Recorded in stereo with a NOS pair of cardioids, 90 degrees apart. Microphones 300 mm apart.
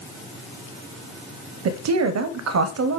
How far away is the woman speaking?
About 0.6 m.